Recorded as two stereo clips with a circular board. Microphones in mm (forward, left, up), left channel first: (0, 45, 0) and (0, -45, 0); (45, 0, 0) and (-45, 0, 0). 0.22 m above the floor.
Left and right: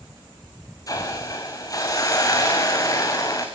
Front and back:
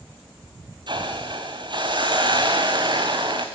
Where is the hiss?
140° left, 3 m.